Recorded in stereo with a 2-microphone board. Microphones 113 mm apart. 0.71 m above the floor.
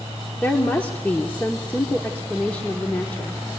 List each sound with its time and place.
0.4 s a woman speaking: 15° left (ahead or behind), 1.5 m